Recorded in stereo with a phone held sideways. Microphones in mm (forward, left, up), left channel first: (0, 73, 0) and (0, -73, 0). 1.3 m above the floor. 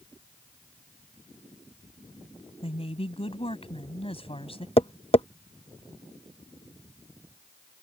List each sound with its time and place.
2.6 s a woman speaking: 40° left (ahead or behind)
4.8 s tapping: 40° left (ahead or behind)